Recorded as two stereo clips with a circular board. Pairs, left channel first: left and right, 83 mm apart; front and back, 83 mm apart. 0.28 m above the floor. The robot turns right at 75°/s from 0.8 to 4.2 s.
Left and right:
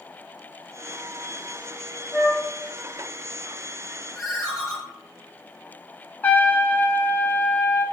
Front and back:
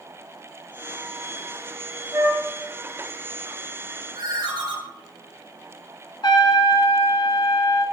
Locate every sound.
2.1 s a flute: 170° left, 1.3 m; by 2.5 s 165° right, 1.3 m
4.2 s a ringtone: 175° right, 2.5 m
6.2 s a trumpet: 25° left, 0.8 m